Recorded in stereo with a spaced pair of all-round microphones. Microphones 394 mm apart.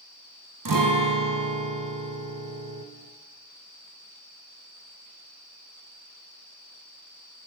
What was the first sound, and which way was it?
A guitar, 55° right (ahead or behind).